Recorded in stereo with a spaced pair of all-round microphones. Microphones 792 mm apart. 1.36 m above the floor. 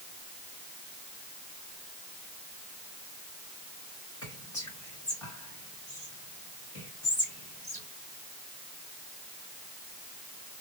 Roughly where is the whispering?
Left.